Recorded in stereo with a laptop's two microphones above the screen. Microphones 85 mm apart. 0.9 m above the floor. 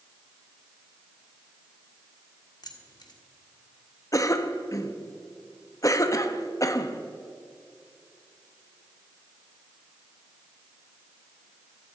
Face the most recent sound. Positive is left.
turn(degrees=40)  # may be behind; listen again after turning